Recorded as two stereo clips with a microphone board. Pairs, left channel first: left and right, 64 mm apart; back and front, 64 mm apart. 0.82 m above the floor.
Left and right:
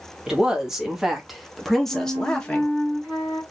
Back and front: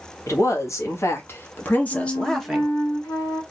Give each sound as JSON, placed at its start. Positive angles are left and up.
{"t": 0.3, "sound": "a woman speaking", "azimuth_deg": -170, "distance_m": 1.5}
{"t": 1.9, "sound": "a flute", "azimuth_deg": -160, "distance_m": 2.5}